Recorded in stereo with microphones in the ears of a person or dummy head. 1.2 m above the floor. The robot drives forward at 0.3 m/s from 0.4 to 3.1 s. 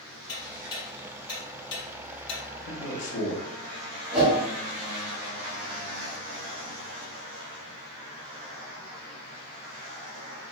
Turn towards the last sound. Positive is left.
turn(degrees=-25)  # may be behind; listen again after turning